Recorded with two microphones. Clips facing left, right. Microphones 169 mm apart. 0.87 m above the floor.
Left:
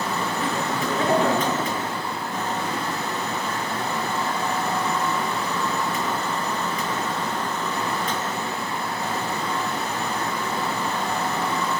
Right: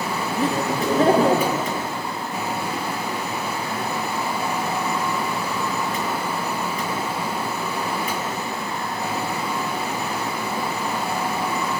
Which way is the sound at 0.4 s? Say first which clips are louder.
Right 3 dB; 40° right (ahead or behind).